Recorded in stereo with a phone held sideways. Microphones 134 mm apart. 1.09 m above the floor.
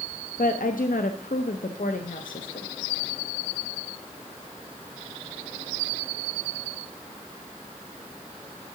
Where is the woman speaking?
85° left, 0.6 m.